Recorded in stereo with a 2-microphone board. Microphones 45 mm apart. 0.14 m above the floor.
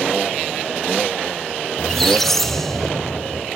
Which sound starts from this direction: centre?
A squeak, at 1.8 s.